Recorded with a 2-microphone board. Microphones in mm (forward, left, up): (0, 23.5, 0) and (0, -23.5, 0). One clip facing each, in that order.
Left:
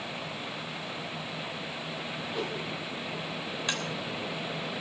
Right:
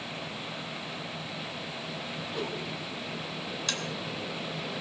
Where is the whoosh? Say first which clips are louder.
Left 1 dB; centre (ahead or behind), 5.5 m.